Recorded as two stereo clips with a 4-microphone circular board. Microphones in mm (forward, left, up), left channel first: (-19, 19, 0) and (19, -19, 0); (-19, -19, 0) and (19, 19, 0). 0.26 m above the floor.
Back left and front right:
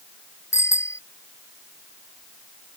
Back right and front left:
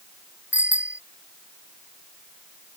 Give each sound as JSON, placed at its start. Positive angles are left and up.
{"t": 0.5, "sound": "a bicycle bell", "azimuth_deg": 110}